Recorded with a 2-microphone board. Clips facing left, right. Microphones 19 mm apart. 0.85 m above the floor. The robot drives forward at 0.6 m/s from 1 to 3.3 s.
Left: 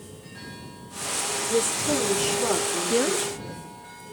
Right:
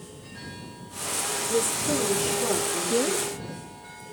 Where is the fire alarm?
No fire alarm in this recording.